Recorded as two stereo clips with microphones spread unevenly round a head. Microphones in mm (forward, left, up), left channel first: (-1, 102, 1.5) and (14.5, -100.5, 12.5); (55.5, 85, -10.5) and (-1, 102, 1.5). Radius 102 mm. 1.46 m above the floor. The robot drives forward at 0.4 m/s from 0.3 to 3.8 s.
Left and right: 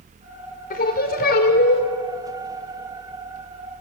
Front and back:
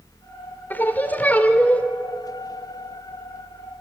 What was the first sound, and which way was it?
Singing, 45° left.